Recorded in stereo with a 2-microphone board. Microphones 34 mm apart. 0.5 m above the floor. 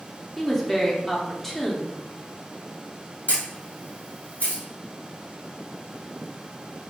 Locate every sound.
0.4 s a woman speaking: 10° left (ahead or behind), 0.7 m
3.3 s a camera shutter: 65° left (ahead or behind), 1.9 m